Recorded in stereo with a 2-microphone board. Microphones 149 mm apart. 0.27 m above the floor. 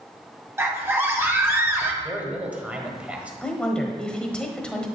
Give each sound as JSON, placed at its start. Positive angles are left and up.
{"t": 0.6, "sound": "a scream", "side_deg": -15, "distance_m": 1.4}
{"t": 2.0, "sound": "a man speaking", "side_deg": -10, "distance_m": 1.1}
{"t": 3.4, "sound": "a woman speaking", "side_deg": 5, "distance_m": 1.1}